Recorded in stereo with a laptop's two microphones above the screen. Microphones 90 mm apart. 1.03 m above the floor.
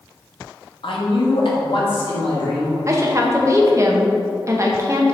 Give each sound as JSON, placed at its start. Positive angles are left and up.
{"t": 0.8, "sound": "a man speaking", "side_deg": 70, "distance_m": 1.2}
{"t": 2.9, "sound": "a woman speaking", "side_deg": -35, "distance_m": 0.9}